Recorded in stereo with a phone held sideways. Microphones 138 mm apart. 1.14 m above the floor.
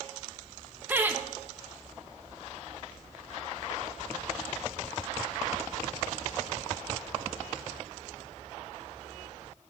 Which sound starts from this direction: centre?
Laughter, at 0.9 s.